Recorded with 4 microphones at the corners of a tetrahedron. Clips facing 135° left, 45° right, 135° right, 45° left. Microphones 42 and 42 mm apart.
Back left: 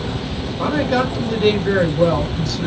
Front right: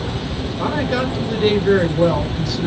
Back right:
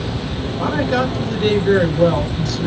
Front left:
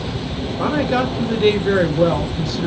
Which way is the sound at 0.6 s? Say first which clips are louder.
Back left 2 dB, even; 35° left.